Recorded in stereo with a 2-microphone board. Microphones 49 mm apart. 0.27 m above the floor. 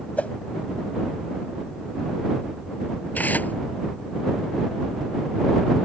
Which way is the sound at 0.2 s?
30° left (ahead or behind).